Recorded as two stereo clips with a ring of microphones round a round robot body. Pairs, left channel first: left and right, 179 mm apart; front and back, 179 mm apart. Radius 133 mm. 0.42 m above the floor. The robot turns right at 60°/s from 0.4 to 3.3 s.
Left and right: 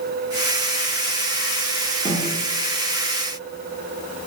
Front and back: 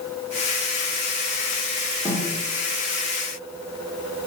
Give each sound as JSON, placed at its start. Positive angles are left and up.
{"t": 2.0, "sound": "a snare drum", "azimuth_deg": -115, "distance_m": 1.3}